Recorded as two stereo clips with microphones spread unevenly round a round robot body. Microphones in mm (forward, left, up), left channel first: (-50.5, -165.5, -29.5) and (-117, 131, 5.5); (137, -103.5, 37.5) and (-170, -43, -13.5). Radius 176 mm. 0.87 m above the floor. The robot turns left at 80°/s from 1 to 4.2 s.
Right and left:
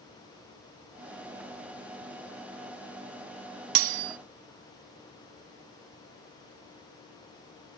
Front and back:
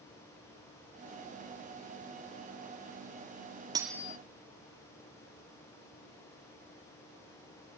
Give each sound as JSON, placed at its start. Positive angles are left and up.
{"t": 3.8, "sound": "cutlery clinking", "azimuth_deg": 85}